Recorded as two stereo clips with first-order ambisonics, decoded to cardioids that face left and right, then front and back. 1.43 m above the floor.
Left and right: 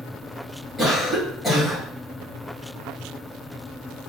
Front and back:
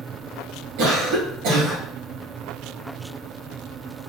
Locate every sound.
0.8 s a cough: 165° left, 2.5 m